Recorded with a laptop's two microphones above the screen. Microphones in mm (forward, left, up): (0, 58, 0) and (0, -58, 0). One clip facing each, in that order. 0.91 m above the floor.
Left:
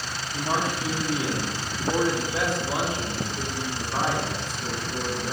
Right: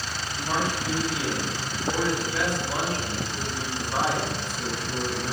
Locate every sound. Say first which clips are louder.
0.3 s a man speaking: left 1 dB; 55° left (ahead or behind), 2.5 m; by 5.3 s 40° right (ahead or behind), 1.8 m